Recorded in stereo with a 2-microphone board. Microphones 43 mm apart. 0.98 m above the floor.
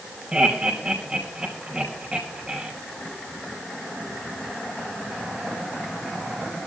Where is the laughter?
25° right (ahead or behind), 5 m.